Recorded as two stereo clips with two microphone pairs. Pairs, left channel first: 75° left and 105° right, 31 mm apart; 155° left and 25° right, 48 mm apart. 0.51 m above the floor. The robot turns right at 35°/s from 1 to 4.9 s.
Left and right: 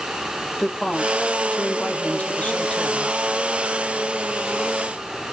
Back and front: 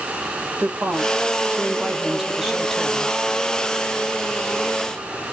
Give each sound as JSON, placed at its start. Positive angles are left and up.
{"t": 0.6, "sound": "a woman speaking", "azimuth_deg": 5, "distance_m": 2.5}